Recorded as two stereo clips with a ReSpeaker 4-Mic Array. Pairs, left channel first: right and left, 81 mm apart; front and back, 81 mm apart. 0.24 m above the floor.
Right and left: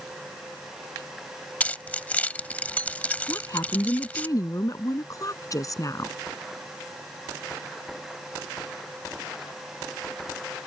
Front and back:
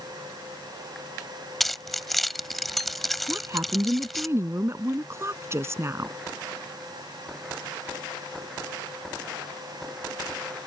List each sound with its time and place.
1.6 s keys jangling: 85° right
3.3 s a woman speaking: 130° right